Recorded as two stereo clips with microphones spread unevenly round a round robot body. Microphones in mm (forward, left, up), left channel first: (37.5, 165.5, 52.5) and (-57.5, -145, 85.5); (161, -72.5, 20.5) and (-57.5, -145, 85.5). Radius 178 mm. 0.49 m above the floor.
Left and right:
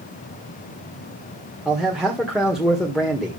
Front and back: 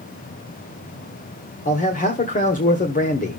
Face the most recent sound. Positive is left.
turn(degrees=-15)